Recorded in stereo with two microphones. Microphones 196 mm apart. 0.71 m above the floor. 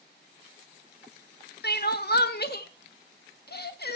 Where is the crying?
55° left (ahead or behind), 0.8 m.